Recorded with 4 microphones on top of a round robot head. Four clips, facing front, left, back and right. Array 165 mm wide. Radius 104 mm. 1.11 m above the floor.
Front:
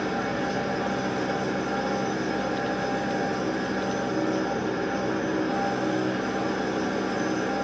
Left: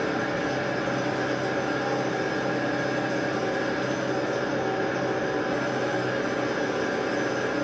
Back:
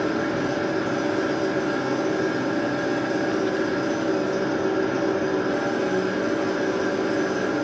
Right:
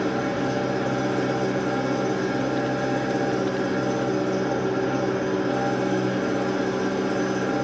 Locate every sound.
0.0 s an engine running: 140° right, 7 m